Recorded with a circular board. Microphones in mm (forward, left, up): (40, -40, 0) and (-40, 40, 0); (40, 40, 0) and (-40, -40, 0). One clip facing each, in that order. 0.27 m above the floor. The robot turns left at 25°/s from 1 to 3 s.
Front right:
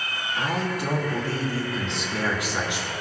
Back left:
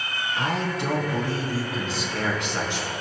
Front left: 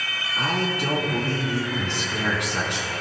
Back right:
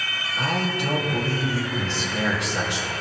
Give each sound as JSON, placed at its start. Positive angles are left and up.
{"t": 0.4, "sound": "a man speaking", "azimuth_deg": 70, "distance_m": 3.5}